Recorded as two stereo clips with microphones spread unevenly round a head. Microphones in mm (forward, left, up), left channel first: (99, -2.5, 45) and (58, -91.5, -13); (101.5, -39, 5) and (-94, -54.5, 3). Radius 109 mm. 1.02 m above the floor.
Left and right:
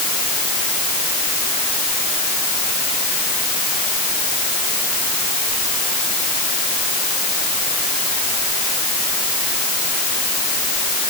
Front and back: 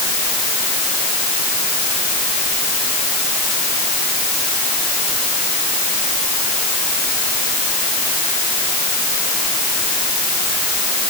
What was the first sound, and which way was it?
Only background noise.